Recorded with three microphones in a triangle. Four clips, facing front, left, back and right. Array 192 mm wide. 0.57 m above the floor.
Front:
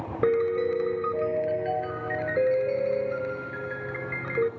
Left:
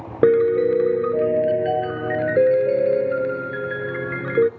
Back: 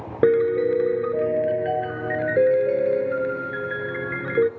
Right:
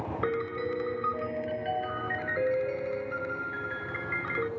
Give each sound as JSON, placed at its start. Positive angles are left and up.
{"t": 0.2, "sound": "a piano", "azimuth_deg": 115, "distance_m": 0.5}